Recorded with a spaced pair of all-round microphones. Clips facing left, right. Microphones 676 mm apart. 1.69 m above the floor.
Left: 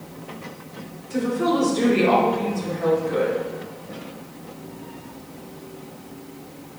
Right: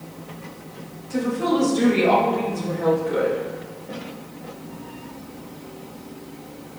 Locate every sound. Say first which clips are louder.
1.1 s a woman speaking: even; 25° right (ahead or behind), 1.2 m; by 3.4 s 75° right (ahead or behind), 1.8 m